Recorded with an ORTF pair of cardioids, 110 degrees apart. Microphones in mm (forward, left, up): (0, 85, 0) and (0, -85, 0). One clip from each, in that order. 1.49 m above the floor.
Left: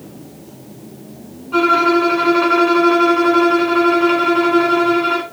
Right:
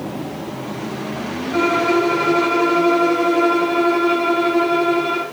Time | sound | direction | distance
1.5 | a violin | 45° left | 1.6 m